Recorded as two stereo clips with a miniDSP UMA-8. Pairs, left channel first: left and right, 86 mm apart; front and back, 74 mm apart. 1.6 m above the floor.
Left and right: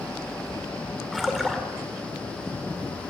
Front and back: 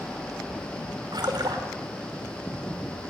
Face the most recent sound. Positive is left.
turn(degrees=180)